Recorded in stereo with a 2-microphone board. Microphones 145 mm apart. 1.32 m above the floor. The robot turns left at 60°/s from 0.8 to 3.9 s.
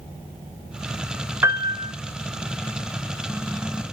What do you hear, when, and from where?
1.4 s a piano: 15° right (ahead or behind), 1.2 m; by 1.9 s 45° right (ahead or behind), 1.2 m